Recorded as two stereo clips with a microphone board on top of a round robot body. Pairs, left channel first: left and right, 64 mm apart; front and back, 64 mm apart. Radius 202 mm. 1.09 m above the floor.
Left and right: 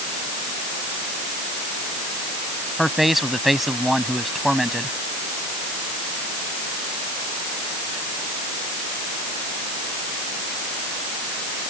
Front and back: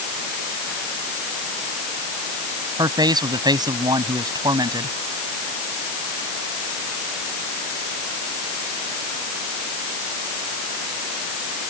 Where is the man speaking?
Straight behind.